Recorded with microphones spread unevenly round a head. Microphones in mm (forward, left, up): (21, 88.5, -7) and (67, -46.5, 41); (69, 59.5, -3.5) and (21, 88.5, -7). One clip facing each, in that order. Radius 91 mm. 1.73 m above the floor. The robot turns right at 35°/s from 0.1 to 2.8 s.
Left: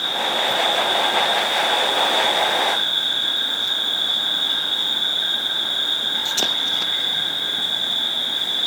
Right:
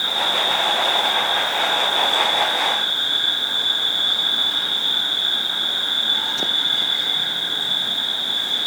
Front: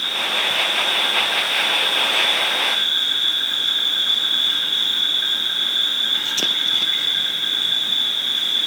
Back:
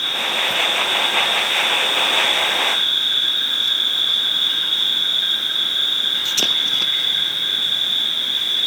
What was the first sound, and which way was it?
An insect, 60° right.